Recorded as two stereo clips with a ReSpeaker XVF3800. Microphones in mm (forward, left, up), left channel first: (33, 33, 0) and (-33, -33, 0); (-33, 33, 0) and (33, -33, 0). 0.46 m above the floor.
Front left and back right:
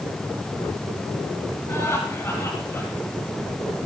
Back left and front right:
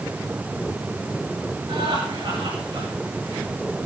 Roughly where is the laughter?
Ahead.